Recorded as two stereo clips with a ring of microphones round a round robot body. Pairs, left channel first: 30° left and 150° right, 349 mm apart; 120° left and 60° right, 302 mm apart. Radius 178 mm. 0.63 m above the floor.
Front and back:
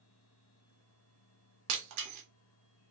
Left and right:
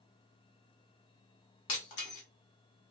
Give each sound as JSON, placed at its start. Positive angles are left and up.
{"t": 1.7, "sound": "breaking glass", "azimuth_deg": 165, "distance_m": 0.8}